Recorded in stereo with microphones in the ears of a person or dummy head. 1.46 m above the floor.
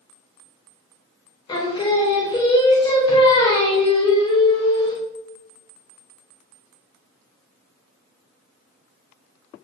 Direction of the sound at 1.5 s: 30° left (ahead or behind).